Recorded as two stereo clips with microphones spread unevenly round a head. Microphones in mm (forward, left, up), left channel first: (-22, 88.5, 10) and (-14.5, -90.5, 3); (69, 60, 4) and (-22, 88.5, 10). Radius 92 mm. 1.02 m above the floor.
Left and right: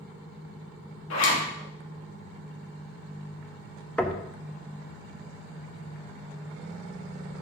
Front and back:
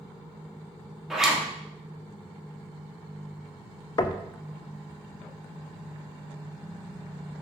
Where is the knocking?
5° left, 0.5 m.